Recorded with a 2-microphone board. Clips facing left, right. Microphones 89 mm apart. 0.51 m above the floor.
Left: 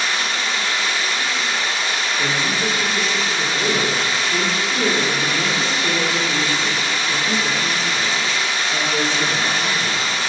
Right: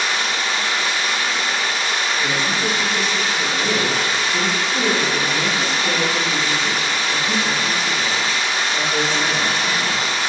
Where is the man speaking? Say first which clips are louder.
Even; 45° left (ahead or behind), 1.7 m.